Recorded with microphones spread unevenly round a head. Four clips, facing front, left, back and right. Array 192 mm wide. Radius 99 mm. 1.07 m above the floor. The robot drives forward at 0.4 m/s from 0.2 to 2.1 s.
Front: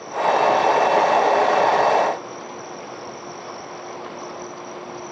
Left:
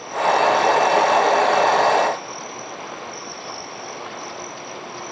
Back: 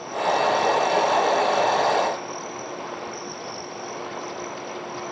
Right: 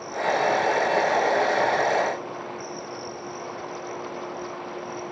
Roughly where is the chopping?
I don't hear chopping.